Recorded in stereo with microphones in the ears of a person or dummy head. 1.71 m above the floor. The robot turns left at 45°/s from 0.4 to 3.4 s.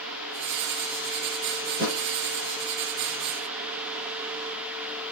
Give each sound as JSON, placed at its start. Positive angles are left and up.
{"t": 1.7, "sound": "a thud", "side_deg": -65, "distance_m": 4.5}